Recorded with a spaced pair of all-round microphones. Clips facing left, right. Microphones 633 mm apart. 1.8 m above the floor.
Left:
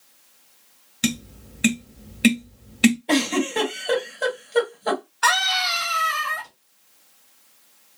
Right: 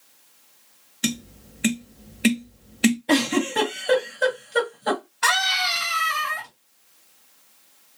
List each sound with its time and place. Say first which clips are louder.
1.0 s tapping: left 2 dB; 35° left (ahead or behind), 0.7 m
3.1 s a giggle: even; 35° right (ahead or behind), 2.5 m
5.2 s a scream: left 2 dB; 50° right (ahead or behind), 2 m